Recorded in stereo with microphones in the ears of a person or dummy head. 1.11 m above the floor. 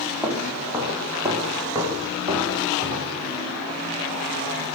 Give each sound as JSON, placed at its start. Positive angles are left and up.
{"t": 0.2, "sound": "footsteps", "side_deg": -5, "distance_m": 4.5}